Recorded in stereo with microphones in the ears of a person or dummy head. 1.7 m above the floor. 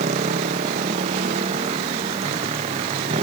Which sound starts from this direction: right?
A motorcycle, at 0.0 s.